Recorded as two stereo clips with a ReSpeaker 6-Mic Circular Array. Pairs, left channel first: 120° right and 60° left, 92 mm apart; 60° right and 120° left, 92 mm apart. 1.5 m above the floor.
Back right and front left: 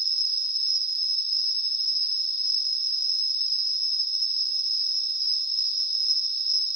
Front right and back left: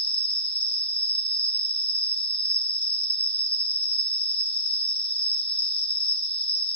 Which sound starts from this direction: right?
An insect, at 0.0 s.